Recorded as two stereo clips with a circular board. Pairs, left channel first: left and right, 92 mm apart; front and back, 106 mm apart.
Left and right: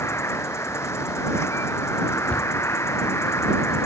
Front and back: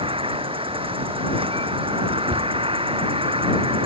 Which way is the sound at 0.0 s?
150° left.